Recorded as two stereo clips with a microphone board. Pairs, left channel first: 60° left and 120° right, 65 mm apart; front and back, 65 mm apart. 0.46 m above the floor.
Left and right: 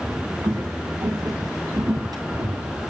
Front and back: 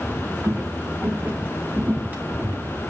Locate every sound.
0.4 s footsteps: 120° right, 7.5 m; by 2.8 s 110° right, 9 m